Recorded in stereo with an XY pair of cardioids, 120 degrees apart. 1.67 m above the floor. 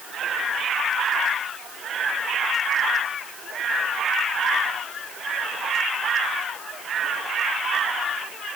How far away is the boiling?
I don't hear boiling.